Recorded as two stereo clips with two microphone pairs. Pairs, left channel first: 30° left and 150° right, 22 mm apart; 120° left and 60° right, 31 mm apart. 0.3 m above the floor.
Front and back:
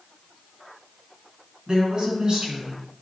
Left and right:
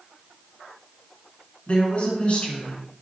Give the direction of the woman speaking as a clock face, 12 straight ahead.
7 o'clock.